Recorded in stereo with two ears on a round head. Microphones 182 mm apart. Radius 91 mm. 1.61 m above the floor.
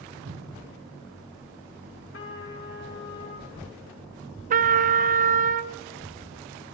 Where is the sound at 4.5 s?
40° right (ahead or behind), 0.6 m.